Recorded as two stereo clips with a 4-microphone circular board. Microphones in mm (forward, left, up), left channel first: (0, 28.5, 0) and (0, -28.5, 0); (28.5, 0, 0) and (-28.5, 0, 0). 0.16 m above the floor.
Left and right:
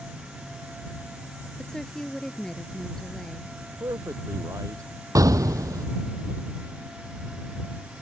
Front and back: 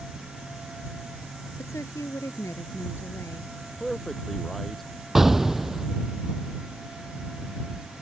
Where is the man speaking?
85° right.